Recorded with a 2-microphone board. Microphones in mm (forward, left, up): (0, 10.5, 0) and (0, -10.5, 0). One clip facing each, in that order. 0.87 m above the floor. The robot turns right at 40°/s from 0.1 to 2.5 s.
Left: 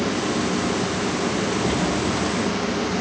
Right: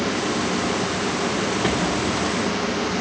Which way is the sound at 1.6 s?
65° right (ahead or behind).